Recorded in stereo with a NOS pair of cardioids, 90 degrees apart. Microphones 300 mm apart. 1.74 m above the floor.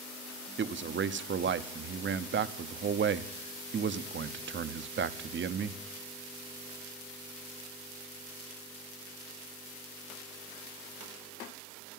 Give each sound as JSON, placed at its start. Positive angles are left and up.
{"t": 0.6, "sound": "a man speaking", "azimuth_deg": -40, "distance_m": 1.0}